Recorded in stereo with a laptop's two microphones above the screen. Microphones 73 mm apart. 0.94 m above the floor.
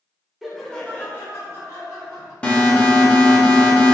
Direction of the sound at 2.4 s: 20° left (ahead or behind).